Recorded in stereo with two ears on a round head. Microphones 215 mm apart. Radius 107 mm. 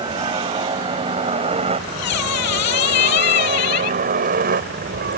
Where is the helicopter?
20° right (ahead or behind); by 5.2 s 45° right (ahead or behind).